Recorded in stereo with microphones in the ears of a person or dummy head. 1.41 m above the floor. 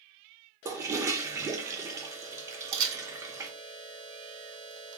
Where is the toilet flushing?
10° right (ahead or behind), 0.6 m.